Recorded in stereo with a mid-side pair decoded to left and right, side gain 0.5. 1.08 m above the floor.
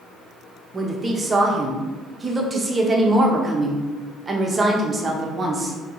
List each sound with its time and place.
0.7 s a woman speaking: 30° right, 0.7 m